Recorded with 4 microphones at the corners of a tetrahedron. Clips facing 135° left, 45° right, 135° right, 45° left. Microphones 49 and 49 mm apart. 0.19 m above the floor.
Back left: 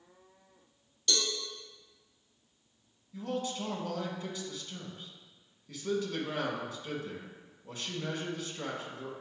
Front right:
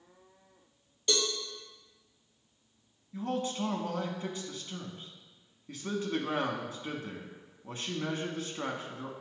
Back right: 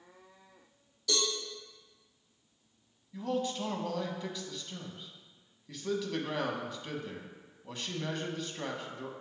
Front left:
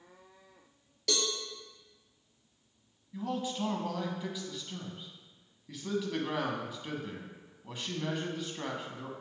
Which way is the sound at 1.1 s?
25° left.